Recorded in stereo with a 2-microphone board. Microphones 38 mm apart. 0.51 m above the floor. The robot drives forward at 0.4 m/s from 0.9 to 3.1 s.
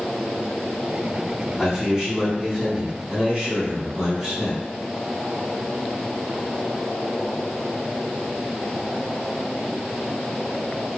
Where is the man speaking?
15° right (ahead or behind), 1.4 m.